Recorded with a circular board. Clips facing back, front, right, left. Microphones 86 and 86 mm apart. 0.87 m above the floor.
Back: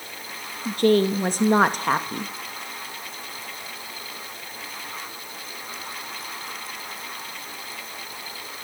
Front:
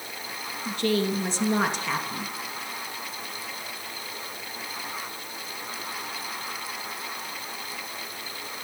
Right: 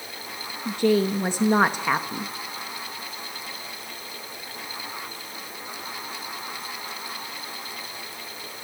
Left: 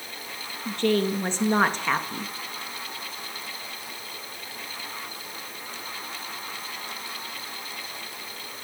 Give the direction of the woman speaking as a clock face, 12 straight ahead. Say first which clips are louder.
Back 7 dB, right 2 dB; 5 o'clock.